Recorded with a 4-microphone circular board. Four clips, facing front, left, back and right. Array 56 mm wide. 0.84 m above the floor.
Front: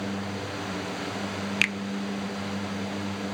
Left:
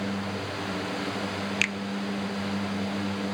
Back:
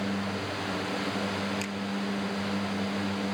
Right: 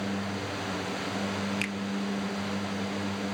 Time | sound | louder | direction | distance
1.6 | a finger snap | left 5 dB, front 9 dB | 25° left | 0.6 m